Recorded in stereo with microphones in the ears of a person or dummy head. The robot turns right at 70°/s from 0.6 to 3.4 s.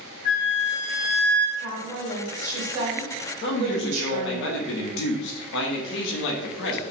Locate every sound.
0.2 s a flute: 110° left, 1.8 m; by 1.5 s 170° left, 1.8 m
1.6 s a woman speaking: 125° left, 1.8 m; by 4.4 s 105° right, 1.8 m
3.4 s a man speaking: 65° left (ahead or behind), 0.9 m